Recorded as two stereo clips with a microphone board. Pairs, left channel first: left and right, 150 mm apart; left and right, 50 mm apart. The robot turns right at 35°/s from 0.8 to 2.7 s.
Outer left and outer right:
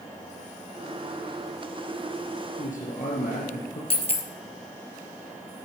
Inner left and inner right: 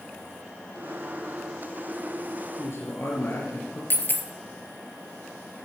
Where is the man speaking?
60° left (ahead or behind), 2.5 m; by 3.8 s 65° left (ahead or behind), 2.5 m.